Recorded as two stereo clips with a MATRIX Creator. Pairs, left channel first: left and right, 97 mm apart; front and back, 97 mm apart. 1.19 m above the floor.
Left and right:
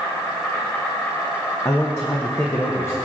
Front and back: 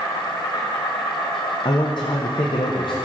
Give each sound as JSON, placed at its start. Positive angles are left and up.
{"t": 0.0, "sound": "an insect", "azimuth_deg": 20, "distance_m": 2.5}
{"t": 1.6, "sound": "a man speaking", "azimuth_deg": 30, "distance_m": 0.7}